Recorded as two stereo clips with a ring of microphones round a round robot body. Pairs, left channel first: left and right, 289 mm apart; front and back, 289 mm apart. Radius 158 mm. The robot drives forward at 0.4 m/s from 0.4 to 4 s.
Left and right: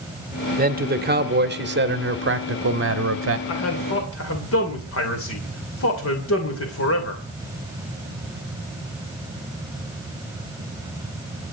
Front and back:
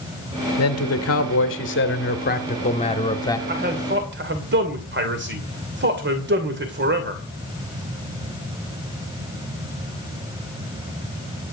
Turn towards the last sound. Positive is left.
turn(degrees=130)